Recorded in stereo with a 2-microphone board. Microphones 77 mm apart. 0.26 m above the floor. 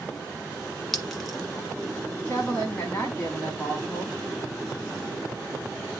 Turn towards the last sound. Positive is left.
turn(degrees=20)  # may be behind; listen again after turning